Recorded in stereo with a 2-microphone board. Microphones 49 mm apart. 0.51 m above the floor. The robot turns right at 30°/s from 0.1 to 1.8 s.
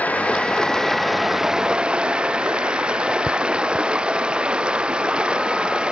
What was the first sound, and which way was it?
Running water, 150° left.